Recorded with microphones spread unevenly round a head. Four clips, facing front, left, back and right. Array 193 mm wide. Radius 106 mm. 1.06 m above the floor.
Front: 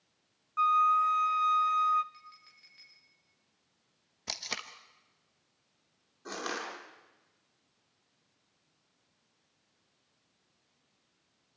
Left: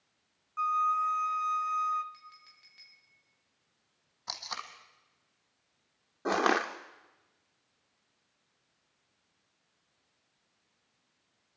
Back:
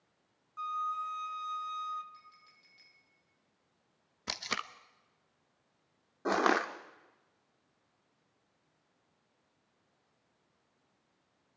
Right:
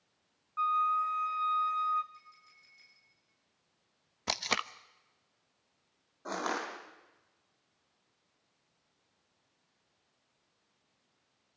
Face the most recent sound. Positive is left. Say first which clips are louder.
# left 8 dB, back 10 dB
turn(degrees=115)